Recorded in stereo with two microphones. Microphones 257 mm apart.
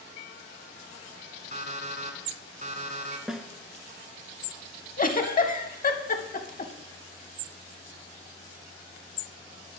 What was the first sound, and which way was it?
An alarm clock, 30° right (ahead or behind).